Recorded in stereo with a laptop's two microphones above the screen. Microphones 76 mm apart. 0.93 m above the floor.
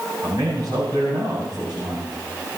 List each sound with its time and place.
0.2 s a man speaking: 60° right (ahead or behind), 8.5 m